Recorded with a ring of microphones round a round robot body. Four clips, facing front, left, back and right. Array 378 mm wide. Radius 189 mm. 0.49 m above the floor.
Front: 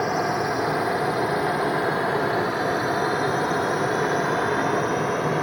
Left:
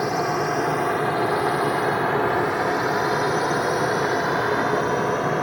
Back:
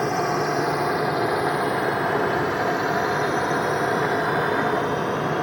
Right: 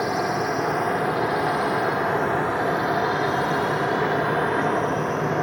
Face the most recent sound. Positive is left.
turn(degrees=80)